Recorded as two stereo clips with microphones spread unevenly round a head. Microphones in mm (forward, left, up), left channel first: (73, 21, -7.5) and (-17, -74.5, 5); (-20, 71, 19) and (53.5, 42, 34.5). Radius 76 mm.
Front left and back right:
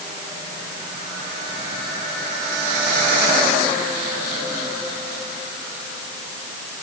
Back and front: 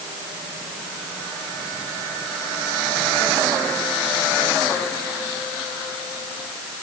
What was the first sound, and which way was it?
Only background noise.